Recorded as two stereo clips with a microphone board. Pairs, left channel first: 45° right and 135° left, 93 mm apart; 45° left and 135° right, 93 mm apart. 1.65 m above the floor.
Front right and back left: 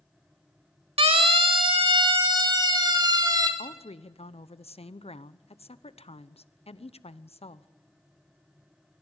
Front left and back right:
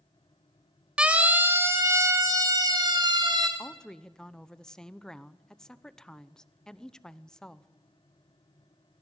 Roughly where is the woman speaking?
Ahead right.